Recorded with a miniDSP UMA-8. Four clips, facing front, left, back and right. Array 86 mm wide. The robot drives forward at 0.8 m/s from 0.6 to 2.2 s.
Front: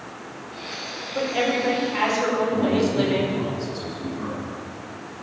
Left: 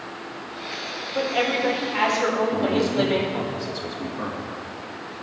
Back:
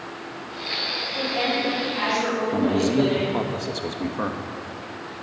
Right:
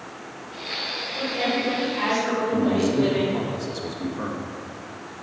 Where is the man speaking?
175° left, 1.5 m.